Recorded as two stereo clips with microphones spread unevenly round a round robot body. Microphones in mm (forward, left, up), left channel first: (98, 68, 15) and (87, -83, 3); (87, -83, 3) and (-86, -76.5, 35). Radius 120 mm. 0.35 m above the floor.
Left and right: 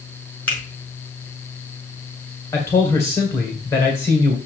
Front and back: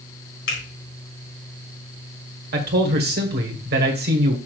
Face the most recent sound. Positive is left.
turn(degrees=165)